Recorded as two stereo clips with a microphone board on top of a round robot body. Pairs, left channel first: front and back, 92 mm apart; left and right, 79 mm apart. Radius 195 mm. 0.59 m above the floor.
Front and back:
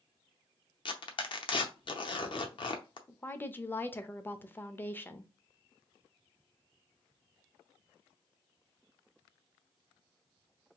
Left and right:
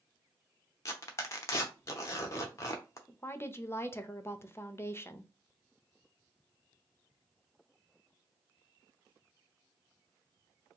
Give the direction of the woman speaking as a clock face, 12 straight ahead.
10 o'clock.